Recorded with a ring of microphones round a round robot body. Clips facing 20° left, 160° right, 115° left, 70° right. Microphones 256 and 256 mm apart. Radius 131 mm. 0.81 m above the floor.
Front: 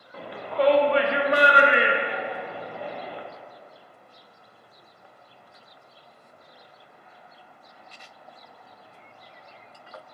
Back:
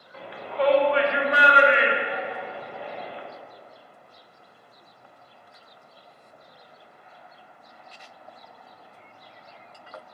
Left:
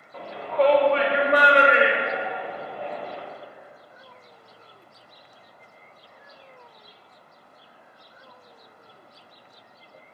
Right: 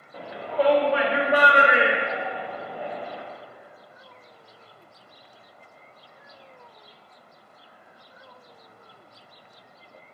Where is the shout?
10° left, 0.6 m.